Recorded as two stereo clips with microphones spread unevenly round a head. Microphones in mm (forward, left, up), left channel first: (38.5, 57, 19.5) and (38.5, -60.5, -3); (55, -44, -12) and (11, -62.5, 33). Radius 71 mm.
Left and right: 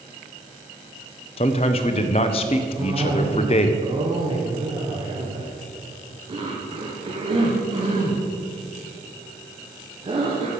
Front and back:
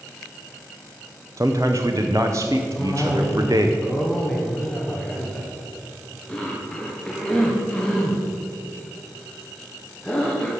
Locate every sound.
1.4 s a man speaking: 145° left, 0.7 m
2.8 s a cough: 45° right, 1.5 m